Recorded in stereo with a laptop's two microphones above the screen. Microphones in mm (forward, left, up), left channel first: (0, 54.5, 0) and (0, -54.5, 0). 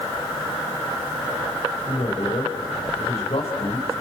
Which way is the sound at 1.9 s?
60° left (ahead or behind).